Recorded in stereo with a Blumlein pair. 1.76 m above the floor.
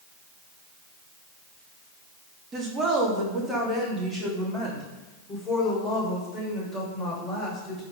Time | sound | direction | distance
2.5 | a woman speaking | 25° right | 3 m